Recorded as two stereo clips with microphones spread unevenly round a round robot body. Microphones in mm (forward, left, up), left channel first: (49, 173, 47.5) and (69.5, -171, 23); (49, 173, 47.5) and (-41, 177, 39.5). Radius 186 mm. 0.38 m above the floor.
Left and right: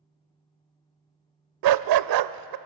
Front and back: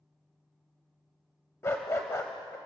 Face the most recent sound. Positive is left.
turn(degrees=-75)